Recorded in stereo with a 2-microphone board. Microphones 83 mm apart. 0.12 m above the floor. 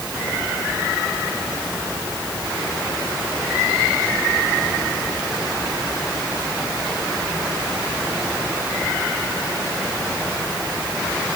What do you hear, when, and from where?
Only background noise.